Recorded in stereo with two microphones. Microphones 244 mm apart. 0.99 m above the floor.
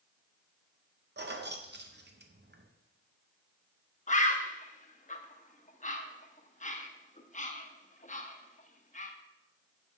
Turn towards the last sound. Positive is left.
turn(degrees=30)  # may be behind; listen again after turning